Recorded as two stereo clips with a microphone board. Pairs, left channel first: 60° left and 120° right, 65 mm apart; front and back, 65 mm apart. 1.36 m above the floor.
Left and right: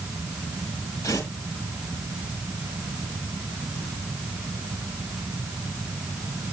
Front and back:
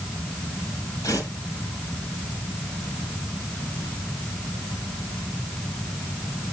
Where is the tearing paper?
35° left, 4 m.